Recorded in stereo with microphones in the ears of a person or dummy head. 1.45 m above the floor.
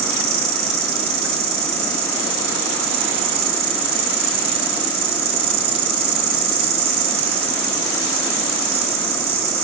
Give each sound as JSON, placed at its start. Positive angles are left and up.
{"t": 0.0, "sound": "an insect", "side_deg": -40, "distance_m": 3.0}